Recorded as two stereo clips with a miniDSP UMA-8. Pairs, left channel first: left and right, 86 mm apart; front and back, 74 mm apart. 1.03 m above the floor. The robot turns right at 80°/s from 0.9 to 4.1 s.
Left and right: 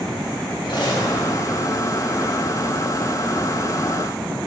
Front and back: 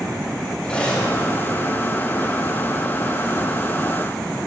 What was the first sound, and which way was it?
Cutlery clinking, 75° left.